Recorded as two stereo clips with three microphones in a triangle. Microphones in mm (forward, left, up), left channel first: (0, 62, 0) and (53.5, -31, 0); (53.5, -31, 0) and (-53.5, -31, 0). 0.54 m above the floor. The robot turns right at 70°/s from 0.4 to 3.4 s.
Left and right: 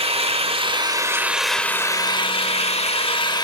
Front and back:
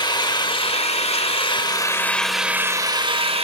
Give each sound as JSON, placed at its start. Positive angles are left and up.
{"t": 0.0, "sound": "an engine running", "azimuth_deg": -45, "distance_m": 1.3}